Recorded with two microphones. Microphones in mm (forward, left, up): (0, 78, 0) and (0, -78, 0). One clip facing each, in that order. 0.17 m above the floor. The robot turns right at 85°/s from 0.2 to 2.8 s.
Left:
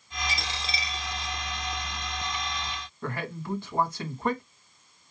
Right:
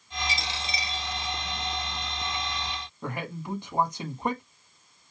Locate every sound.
0.3 s a dropped coin: 110° left, 1.2 m; by 1.3 s 160° right, 1.2 m
3.0 s a man speaking: 15° right (ahead or behind), 1.0 m